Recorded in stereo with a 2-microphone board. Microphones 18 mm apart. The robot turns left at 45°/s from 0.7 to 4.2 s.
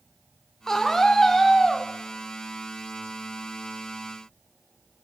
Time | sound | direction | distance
0.7 | a scream | 25° left (ahead or behind) | 0.9 m